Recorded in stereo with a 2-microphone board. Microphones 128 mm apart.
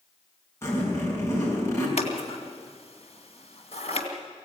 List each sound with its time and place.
0.6 s a zipper: 20° left (ahead or behind), 6 m
2.0 s scissors: 55° left (ahead or behind), 2 m